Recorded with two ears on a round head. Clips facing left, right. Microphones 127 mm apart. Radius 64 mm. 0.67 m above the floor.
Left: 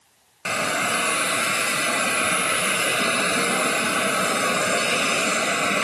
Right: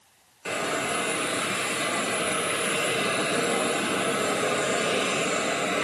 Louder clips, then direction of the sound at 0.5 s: Left 3 dB; 75° left (ahead or behind).